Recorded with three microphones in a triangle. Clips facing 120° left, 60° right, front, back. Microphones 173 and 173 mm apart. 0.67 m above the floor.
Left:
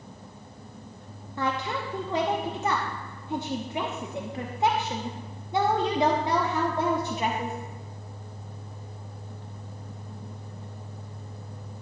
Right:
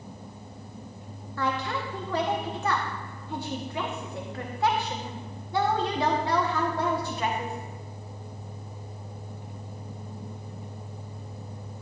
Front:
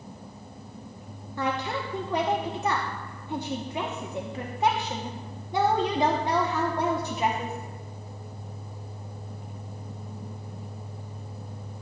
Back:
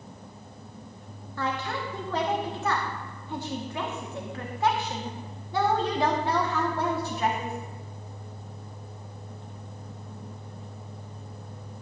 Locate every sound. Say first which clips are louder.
1.4 s a woman speaking: even, front 2 dB; 60° left, 0.9 m